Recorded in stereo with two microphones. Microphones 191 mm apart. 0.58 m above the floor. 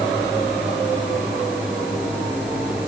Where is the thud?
I don't hear a thud.